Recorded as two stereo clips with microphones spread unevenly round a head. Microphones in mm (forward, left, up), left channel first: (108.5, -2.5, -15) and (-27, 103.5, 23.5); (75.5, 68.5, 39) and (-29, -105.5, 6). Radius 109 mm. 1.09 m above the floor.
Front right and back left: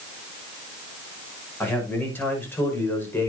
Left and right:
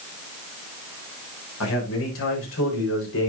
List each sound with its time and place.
1.6 s a man speaking: 40° left, 6.5 m